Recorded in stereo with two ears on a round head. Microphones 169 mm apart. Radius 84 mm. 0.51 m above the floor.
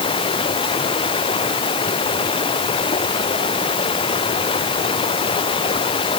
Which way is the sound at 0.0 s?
30° left (ahead or behind).